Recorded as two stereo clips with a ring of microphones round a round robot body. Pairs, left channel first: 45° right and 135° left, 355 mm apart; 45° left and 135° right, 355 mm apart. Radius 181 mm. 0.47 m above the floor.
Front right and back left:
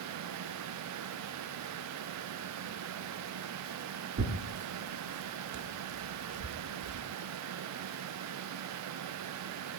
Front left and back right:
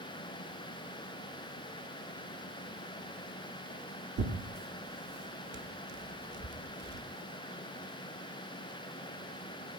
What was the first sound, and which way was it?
Tearing paper, straight behind.